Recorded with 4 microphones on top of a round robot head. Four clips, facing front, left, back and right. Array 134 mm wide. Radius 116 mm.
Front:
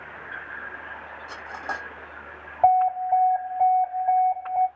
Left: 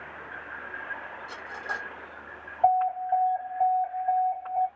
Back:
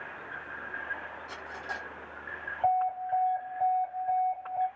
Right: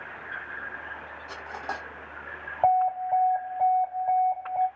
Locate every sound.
1.3 s cutlery clinking: 35° right, 2.5 m
2.6 s an alarm: 30° right, 3 m